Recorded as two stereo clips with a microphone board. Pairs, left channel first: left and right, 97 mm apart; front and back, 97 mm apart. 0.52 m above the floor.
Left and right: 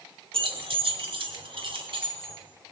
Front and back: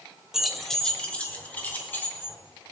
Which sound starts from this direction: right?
Keys jangling, at 0.3 s.